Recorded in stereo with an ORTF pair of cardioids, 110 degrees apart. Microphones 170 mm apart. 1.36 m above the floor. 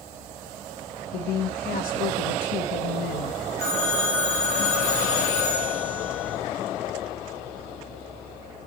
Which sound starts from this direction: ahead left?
A woman speaking, at 1.1 s.